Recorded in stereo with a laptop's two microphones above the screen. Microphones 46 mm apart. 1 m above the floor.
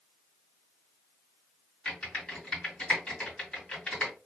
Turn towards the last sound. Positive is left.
turn(degrees=20)  # may be behind; listen again after turning